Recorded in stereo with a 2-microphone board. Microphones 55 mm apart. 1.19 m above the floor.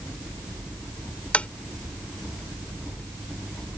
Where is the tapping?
25° left (ahead or behind).